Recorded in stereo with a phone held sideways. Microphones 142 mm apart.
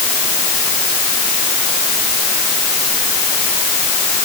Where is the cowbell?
No cowbell in this recording.